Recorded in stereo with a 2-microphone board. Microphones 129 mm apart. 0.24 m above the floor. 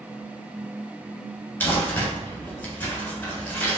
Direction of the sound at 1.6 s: 10° left (ahead or behind).